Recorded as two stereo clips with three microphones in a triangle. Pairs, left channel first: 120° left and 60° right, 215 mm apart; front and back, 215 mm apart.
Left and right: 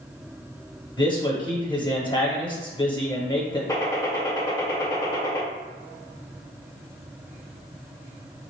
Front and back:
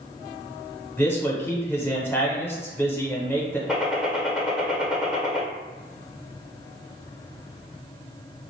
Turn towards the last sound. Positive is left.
turn(degrees=100)